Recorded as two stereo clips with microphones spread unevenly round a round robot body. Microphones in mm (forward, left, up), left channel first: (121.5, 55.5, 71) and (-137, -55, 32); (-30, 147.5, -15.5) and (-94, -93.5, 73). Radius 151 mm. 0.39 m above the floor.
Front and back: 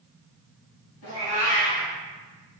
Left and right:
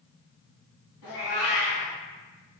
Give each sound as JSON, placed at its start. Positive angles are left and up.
{"t": 1.0, "sound": "a cat meowing", "azimuth_deg": 55, "distance_m": 1.3}